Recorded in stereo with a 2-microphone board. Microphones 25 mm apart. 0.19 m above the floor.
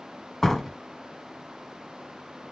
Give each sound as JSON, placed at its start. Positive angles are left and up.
{"t": 0.4, "sound": "a door slam", "side_deg": 15, "distance_m": 1.4}